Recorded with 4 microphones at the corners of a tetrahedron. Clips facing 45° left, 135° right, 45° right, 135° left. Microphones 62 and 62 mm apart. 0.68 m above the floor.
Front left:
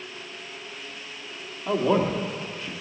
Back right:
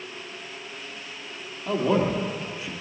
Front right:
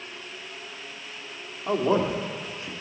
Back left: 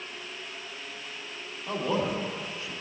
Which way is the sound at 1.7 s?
40° right.